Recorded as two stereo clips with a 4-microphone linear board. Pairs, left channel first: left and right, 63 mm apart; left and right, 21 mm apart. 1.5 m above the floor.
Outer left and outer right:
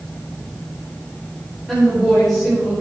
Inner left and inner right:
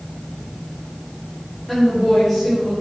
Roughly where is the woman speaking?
Centre.